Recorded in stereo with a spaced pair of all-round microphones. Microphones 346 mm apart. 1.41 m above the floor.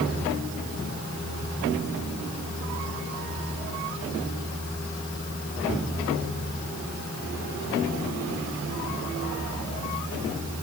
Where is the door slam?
No door slam in this recording.